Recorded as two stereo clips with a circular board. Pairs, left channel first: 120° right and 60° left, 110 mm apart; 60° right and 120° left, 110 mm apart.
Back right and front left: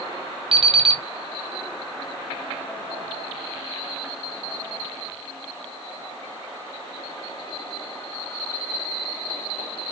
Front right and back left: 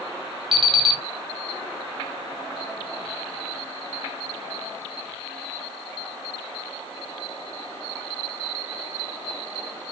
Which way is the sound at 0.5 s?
85° left.